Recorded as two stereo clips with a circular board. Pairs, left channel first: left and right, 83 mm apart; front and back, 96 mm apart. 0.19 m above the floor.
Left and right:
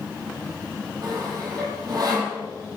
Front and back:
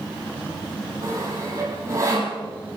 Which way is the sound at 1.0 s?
125° right.